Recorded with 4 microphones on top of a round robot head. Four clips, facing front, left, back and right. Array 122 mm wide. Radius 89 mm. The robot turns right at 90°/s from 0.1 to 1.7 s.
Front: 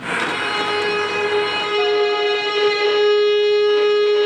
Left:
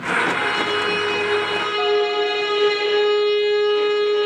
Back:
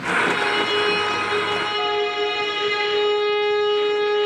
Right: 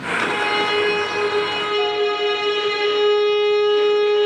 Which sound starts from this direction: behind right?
A violin, at 0.2 s.